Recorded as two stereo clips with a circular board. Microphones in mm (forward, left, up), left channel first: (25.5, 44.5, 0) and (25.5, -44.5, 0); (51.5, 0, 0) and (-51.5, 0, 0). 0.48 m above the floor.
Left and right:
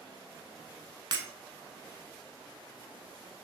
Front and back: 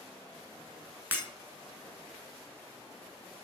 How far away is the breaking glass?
About 0.6 m.